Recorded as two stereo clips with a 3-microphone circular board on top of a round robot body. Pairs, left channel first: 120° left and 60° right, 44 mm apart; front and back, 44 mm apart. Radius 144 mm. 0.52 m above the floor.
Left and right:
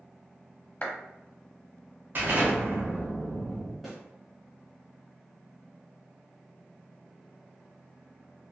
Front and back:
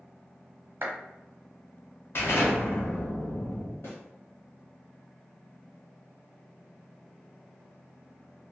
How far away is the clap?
About 1.0 m.